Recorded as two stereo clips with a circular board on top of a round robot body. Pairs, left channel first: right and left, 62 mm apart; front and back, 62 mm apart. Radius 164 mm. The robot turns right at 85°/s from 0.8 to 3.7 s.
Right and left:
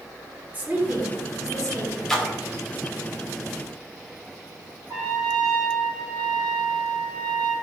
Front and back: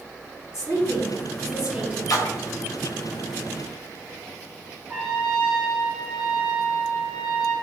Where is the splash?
10° right, 0.6 m; by 2.6 s 35° left, 0.6 m.